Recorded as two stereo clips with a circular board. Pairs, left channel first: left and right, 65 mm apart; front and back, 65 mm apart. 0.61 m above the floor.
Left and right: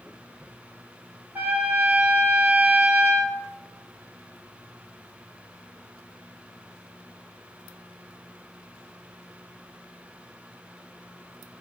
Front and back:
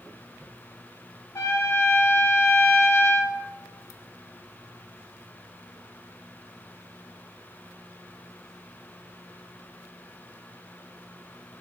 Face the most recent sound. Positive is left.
turn(degrees=-30)